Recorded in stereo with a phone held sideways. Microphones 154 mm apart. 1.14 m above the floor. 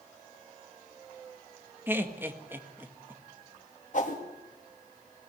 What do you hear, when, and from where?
1.9 s laughter: 15° right (ahead or behind), 1.8 m
3.9 s a whoosh: 55° left (ahead or behind), 2.5 m